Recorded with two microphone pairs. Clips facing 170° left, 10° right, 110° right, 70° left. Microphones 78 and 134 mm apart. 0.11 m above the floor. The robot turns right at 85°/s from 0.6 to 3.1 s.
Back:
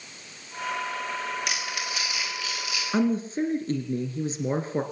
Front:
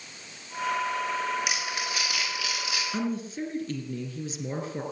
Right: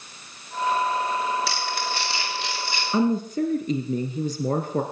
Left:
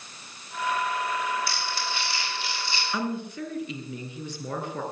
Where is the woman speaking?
165° right, 2 m; by 4.8 s 150° right, 2 m.